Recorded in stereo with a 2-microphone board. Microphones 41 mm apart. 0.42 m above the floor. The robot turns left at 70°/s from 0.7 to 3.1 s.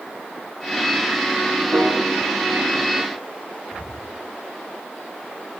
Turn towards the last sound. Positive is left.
turn(degrees=85)